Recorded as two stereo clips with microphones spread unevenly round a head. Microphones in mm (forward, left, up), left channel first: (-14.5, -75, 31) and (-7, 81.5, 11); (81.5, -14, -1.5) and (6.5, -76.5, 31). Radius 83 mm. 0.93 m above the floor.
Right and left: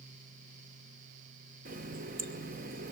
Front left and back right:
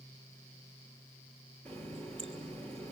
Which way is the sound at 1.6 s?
125° left.